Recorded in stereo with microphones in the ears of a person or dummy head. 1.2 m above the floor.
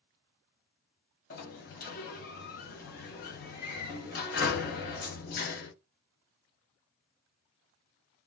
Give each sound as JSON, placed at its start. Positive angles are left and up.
{"t": 1.3, "sound": "a sliding door", "side_deg": 50, "distance_m": 0.9}